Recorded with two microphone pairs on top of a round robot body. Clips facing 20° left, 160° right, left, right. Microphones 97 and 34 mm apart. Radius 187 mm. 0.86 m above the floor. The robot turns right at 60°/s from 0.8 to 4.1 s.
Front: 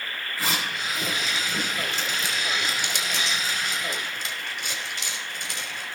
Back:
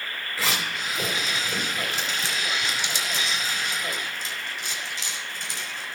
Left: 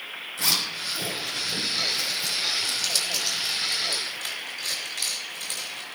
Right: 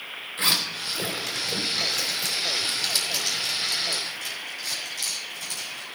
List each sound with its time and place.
0.4 s a zipper: 140° right, 3.5 m; by 6.0 s 60° left, 3.5 m